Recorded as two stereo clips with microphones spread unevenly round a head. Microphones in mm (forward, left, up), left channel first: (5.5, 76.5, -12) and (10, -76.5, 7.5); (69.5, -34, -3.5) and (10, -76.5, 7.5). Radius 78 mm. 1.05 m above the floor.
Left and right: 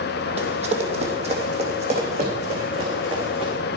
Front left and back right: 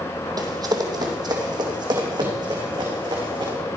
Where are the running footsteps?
130° right, 2 m; by 3.5 s 135° right, 5 m.